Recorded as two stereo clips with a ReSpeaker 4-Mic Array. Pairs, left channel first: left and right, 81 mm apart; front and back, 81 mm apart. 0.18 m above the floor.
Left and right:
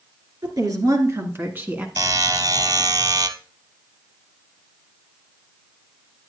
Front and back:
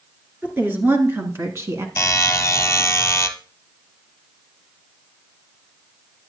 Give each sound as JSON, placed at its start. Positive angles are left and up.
{"t": 0.4, "sound": "a woman speaking", "azimuth_deg": -115, "distance_m": 3.0}
{"t": 2.0, "sound": "a buzzer", "azimuth_deg": -55, "distance_m": 0.9}